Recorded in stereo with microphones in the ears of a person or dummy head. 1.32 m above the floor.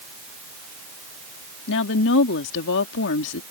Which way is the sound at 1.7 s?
65° left (ahead or behind).